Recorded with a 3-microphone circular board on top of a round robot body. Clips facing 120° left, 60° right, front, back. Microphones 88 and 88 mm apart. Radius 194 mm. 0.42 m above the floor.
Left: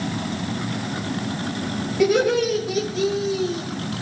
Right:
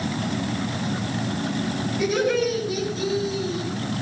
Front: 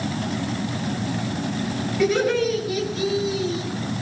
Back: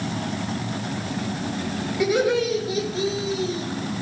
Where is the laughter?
105° left, 4 m; by 3.7 s 135° left, 4 m.